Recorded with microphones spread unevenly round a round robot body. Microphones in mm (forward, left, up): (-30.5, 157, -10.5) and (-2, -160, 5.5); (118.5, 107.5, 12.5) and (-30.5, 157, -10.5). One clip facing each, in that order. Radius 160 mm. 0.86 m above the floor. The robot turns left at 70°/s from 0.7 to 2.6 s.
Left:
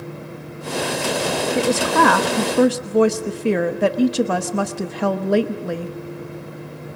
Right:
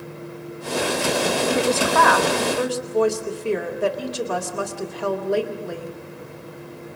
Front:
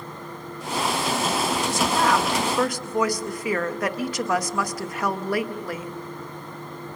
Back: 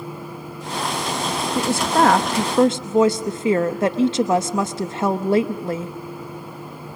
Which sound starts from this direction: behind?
A woman speaking, at 1.6 s.